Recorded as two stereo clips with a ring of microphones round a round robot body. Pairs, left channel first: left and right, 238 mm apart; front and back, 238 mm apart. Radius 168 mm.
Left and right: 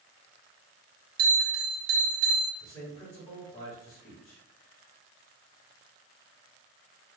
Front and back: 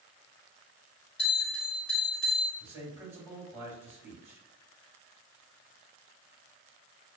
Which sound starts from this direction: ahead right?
A bell, at 1.2 s.